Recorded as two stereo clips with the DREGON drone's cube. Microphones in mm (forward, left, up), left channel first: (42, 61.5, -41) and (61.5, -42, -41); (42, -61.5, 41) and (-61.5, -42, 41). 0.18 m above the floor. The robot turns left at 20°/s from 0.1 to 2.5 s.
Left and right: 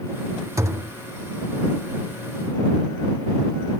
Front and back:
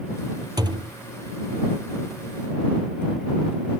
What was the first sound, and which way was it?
A thud, 140° right.